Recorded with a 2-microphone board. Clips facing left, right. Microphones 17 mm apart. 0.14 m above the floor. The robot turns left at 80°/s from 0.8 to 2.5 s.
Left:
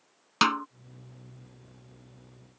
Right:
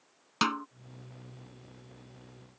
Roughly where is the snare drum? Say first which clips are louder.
Left 5 dB; left.